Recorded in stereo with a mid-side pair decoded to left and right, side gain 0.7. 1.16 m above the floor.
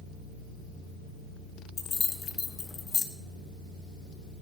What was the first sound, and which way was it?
Keys jangling, 30° left.